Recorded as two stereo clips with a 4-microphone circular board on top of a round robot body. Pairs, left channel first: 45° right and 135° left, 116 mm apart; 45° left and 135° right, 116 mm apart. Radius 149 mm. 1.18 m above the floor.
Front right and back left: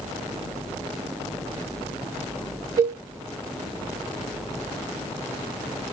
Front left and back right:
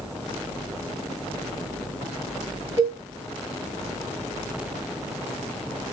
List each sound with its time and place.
2.8 s a cowbell: 80° left, 1.2 m